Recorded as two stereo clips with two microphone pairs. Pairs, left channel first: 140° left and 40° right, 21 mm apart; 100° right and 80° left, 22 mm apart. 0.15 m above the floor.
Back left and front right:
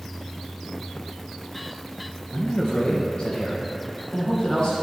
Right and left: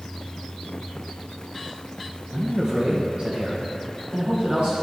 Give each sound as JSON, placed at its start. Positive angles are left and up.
{"t": 2.3, "sound": "a man speaking", "azimuth_deg": 115, "distance_m": 2.5}